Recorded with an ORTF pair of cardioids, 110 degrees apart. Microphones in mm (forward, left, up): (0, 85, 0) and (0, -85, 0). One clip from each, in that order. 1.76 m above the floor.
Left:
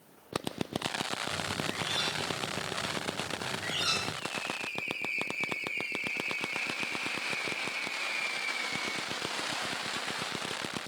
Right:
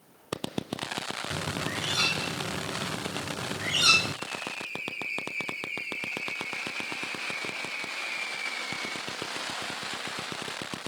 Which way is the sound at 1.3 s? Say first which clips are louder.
Right 2 dB; 50° right.